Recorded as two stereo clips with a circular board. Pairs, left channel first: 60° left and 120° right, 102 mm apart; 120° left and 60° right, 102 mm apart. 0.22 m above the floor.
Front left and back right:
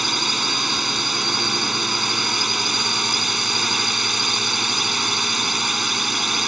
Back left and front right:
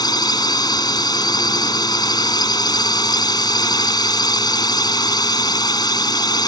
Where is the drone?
150° left.